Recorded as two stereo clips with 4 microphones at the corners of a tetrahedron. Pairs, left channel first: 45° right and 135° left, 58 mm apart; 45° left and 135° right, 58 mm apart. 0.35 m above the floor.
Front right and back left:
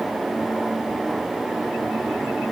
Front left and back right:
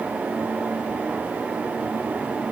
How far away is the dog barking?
No dog barking in this recording.